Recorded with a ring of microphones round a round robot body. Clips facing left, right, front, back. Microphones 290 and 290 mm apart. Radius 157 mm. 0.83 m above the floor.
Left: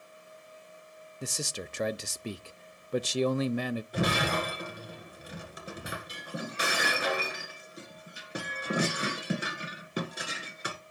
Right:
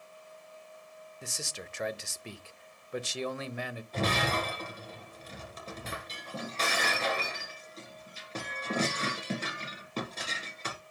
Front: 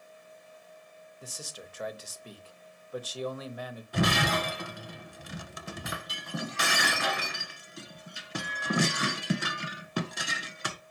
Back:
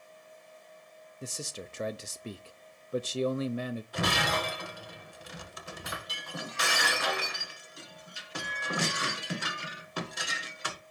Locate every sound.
1.2 s a man speaking: 125° left, 0.5 m
3.9 s breaking glass: 10° left, 1.6 m